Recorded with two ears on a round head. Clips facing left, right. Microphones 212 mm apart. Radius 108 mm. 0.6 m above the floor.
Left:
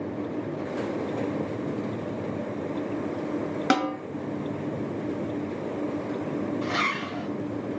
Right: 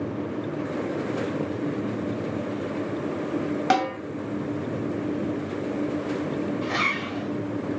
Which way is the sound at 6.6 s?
30° left (ahead or behind).